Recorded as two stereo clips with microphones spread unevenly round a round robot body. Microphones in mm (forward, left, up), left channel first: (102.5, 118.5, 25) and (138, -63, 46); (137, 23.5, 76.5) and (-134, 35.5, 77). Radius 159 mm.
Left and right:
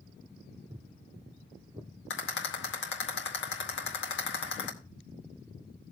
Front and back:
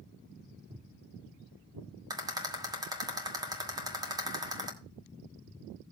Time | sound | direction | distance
0.7 | footsteps | 120° right | 0.9 m
2.1 | a rattle | 100° left | 2 m